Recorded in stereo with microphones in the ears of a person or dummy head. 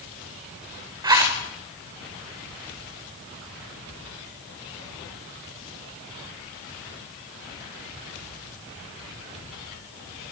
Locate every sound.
1.0 s a zipper: 30° right (ahead or behind), 4.5 m